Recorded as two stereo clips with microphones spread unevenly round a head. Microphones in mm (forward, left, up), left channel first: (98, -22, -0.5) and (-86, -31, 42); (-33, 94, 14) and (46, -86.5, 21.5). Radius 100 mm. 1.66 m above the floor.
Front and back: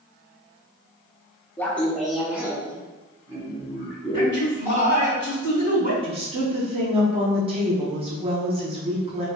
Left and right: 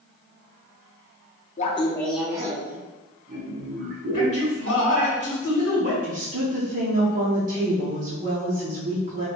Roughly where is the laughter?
Left.